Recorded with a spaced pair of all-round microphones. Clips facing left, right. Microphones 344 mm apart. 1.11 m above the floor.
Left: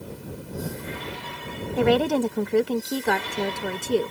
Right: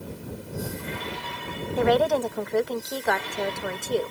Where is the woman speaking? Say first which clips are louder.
Left 2 dB; 40° left (ahead or behind).